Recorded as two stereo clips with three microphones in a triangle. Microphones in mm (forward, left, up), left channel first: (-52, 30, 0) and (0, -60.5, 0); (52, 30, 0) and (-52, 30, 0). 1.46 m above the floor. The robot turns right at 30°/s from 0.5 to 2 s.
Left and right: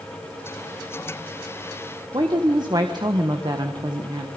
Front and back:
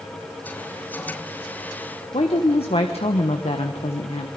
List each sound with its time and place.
2.1 s a woman speaking: 15° right, 1.3 m